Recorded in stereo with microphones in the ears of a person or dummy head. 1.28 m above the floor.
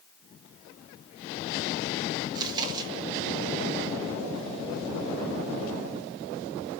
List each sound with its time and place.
2.4 s chewing: 25° right (ahead or behind), 2.5 m